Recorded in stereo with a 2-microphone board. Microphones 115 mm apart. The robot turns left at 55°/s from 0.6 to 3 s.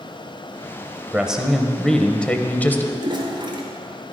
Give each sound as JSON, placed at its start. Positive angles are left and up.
{"t": 1.1, "sound": "a man speaking", "side_deg": -10, "distance_m": 1.0}
{"t": 3.0, "sound": "a toilet flushing", "side_deg": -50, "distance_m": 2.5}